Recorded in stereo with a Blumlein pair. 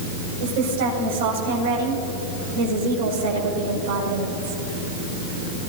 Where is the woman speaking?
50° right, 6 m.